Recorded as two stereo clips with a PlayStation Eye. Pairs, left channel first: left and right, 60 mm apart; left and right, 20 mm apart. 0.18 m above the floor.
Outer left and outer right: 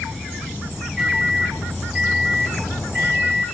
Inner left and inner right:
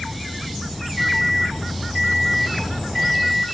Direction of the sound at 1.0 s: Centre (ahead or behind).